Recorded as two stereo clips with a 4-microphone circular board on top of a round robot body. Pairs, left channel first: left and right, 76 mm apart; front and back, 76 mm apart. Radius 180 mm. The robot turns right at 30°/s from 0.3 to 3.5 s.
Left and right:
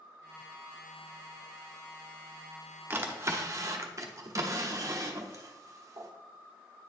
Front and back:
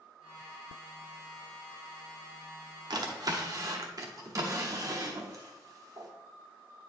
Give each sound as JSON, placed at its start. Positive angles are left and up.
{"t": 2.9, "sound": "a drawer", "azimuth_deg": -155, "distance_m": 0.9}